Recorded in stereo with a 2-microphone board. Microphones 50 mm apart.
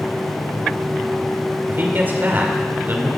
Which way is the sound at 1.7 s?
45° right (ahead or behind).